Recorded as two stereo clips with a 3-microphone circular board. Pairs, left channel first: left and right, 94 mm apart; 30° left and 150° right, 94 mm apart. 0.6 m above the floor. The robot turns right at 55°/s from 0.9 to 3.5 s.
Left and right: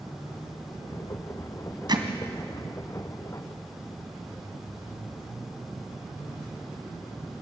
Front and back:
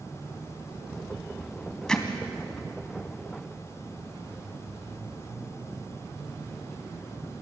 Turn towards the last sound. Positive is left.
turn(degrees=35)